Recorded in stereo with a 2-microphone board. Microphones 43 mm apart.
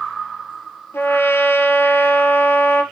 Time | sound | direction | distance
0.9 | a trumpet | 55° left (ahead or behind) | 1.8 m